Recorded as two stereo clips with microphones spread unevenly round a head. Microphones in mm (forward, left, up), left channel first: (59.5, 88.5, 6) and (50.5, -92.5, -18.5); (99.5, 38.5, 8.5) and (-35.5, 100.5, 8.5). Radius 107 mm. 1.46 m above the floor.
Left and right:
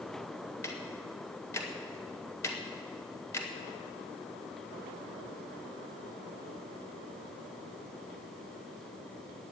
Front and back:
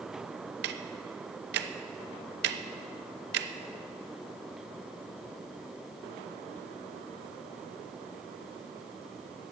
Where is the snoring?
I don't hear snoring.